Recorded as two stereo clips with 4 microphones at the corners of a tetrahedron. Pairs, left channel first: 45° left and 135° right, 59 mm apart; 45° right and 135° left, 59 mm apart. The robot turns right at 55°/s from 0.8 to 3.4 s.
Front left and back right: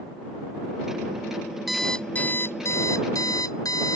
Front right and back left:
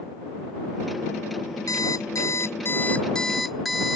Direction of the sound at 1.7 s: 50° right.